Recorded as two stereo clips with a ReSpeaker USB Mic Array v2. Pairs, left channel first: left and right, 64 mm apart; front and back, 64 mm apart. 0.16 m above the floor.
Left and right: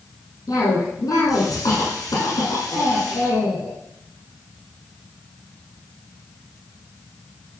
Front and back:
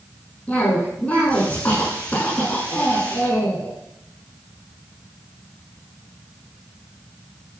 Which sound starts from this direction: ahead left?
A cough, at 0.5 s.